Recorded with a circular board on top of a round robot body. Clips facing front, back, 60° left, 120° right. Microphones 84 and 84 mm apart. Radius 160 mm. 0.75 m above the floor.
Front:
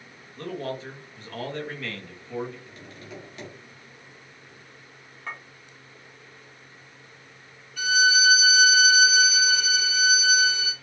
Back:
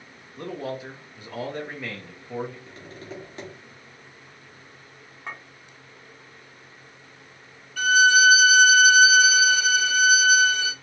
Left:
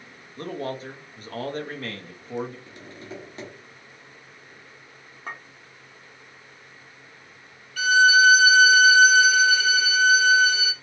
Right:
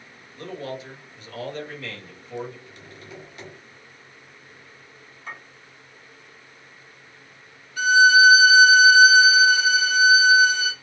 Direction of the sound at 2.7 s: 120° left.